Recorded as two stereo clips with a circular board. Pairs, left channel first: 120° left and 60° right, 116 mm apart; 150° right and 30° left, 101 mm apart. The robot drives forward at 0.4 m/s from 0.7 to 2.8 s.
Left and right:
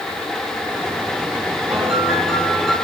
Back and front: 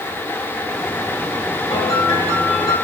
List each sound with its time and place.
1.7 s a piano: 150° right, 3.5 m